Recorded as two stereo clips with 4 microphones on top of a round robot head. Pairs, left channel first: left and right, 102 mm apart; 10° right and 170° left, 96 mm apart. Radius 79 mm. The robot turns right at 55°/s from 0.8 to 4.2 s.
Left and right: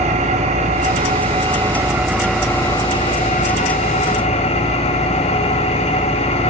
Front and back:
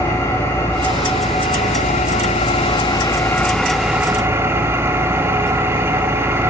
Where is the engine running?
80° right, 3.5 m; by 6.5 s 105° left, 3.5 m.